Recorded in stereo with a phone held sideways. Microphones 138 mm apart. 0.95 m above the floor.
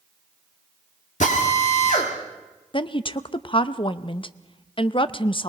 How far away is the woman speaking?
About 0.6 m.